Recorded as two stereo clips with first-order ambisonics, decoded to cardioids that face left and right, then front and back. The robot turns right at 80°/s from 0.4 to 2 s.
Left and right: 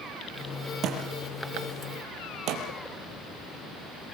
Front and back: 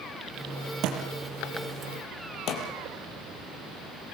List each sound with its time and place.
0.8 s a thud: 140° right, 4.5 m; by 2.6 s 45° right, 4.5 m